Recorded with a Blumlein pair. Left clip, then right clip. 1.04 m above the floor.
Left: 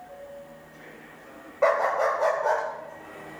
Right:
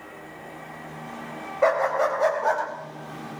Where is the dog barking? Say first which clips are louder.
Right 1 dB; 5° right, 2.5 m; by 2.6 s 10° right, 3 m.